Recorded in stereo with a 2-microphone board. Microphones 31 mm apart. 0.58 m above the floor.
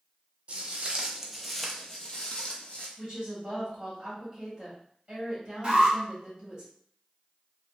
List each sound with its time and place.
0.5 s footsteps: 45° right (ahead or behind), 0.8 m; by 2.9 s 50° left (ahead or behind), 1.0 m
3.0 s a woman speaking: 15° right (ahead or behind), 1.2 m
5.6 s an alarm: 35° right (ahead or behind), 1.4 m